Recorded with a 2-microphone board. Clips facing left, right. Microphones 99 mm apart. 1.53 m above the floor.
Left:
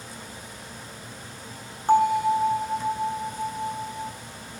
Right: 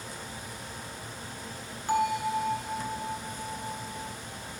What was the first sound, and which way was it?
A bell, 40° left (ahead or behind).